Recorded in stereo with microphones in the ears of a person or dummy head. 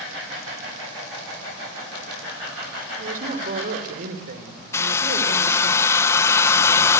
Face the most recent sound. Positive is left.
turn(degrees=15)  # may be behind; listen again after turning